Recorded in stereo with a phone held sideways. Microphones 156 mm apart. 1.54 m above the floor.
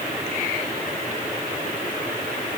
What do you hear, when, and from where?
Only background noise.